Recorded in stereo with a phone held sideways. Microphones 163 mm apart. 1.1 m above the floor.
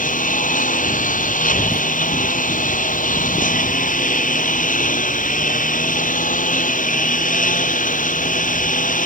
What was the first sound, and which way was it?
A lawn mower, 50° left (ahead or behind).